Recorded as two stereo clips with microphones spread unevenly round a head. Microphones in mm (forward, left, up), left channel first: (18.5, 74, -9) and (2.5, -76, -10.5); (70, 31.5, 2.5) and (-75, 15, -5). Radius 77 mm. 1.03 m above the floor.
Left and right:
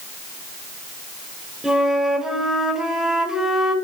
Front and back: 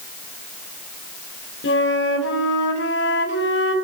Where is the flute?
10° right, 2.5 m.